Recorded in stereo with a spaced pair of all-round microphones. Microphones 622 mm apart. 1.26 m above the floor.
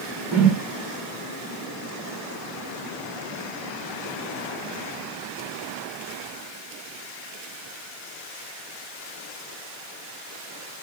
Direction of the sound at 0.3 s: 45° right (ahead or behind).